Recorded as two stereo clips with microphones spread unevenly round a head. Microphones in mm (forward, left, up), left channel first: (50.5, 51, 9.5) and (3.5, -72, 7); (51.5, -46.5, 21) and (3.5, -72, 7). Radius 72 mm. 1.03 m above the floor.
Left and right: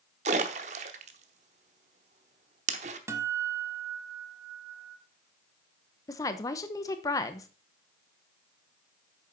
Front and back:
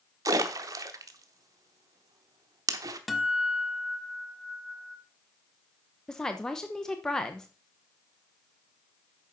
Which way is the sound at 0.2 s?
140° right.